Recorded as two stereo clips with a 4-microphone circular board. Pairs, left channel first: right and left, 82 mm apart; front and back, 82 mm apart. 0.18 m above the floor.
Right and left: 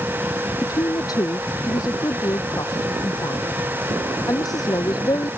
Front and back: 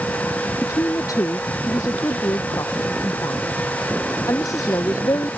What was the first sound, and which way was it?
A woman speaking, 50° right.